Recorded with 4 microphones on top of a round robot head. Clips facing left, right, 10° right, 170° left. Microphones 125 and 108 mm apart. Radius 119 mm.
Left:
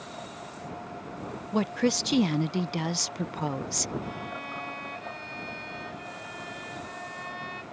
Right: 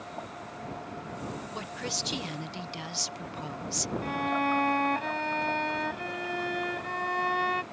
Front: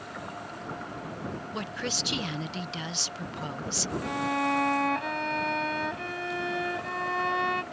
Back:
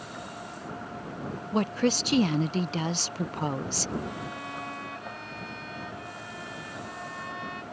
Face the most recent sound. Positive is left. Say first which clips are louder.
# right 8 dB, front 8 dB
turn(degrees=-50)